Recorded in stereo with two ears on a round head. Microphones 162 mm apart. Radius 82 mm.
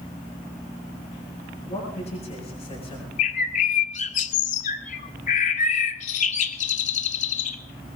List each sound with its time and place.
1.7 s a man speaking: 40° left (ahead or behind), 7 m; by 3.1 s 35° left (ahead or behind), 6.5 m
3.2 s a bird: 40° left (ahead or behind), 0.8 m